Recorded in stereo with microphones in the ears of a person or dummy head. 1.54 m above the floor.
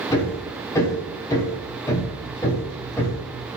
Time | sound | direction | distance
0.1 | hammering | 20° left (ahead or behind) | 4 m